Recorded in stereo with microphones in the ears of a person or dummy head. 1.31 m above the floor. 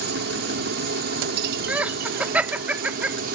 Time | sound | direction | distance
0.0 | a helicopter | 55° right (ahead or behind) | ?
1.7 | laughter | 10° right (ahead or behind) | ?